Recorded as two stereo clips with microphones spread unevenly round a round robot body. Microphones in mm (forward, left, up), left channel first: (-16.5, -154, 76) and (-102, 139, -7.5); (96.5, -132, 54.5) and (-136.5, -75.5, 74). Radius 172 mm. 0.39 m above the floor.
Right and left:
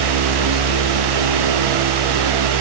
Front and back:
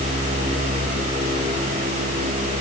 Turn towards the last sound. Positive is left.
No sound to turn to.